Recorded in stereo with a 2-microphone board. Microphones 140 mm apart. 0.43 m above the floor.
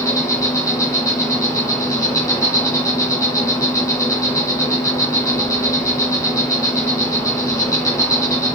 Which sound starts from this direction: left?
An insect, at 0.0 s.